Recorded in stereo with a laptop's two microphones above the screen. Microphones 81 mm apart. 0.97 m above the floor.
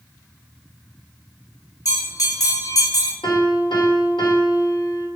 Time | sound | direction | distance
1.9 | a bell | 50° left (ahead or behind) | 1.8 m
3.2 | a piano | 75° left (ahead or behind) | 1.5 m